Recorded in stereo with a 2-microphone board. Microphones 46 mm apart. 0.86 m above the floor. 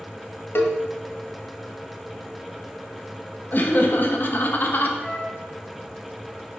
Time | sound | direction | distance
0.6 | a cowbell | 60° left (ahead or behind) | 1.0 m
3.5 | laughter | 45° left (ahead or behind) | 0.9 m
5.0 | a flute | 10° right (ahead or behind) | 3 m